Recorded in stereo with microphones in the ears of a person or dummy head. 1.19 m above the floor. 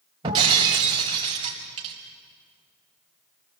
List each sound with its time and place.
0.2 s breaking glass: 25° right (ahead or behind), 4 m